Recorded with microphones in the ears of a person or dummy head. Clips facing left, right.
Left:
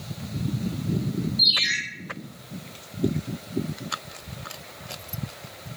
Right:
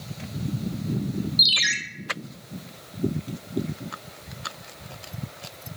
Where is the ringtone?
75° right (ahead or behind), 0.6 m.